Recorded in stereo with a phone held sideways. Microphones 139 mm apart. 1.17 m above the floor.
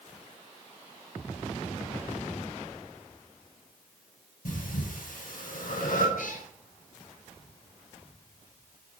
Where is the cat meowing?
75° left (ahead or behind), 3 m.